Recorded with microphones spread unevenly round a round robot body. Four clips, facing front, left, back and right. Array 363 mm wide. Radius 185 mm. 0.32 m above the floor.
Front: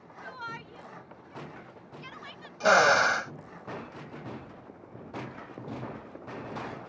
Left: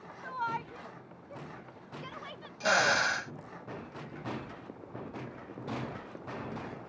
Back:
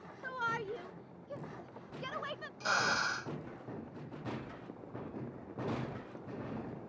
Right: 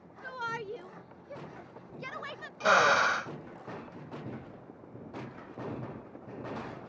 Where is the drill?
15° right.